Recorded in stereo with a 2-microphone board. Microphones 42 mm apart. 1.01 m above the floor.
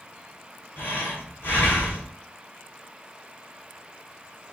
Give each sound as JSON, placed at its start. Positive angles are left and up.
{"t": 0.8, "sound": "breathing", "side_deg": 65, "distance_m": 2.5}